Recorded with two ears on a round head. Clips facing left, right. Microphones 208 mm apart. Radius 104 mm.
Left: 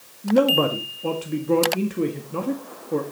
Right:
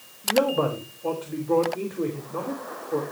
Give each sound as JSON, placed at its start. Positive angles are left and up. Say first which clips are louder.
{"t": 0.2, "sound": "a man speaking", "louder": "left 4 dB", "side_deg": 40, "distance_m": 1.7}